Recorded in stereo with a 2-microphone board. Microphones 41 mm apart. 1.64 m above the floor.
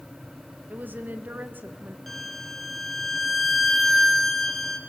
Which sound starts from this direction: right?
A woman speaking, at 0.7 s.